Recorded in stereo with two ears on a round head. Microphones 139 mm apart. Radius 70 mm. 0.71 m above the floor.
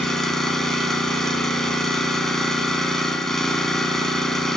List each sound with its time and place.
0.0 s an engine running: 5° left (ahead or behind), 1.9 m